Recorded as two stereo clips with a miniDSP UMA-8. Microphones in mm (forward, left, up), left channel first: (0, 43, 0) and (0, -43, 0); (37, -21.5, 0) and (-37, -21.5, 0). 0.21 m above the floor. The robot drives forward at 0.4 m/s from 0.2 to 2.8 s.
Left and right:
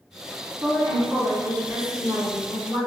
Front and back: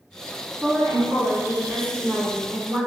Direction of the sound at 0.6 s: 115° right.